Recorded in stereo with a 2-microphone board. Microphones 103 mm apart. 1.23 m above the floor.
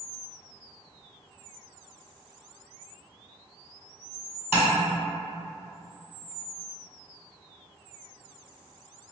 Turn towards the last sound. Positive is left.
turn(degrees=-20)  # may be behind; listen again after turning